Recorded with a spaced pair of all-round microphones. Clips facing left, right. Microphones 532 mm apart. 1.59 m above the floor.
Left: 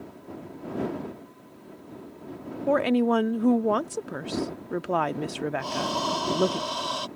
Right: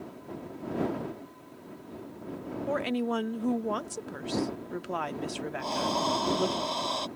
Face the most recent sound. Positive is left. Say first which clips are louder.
# left 1 dB
turn(degrees=35)  # may be behind; listen again after turning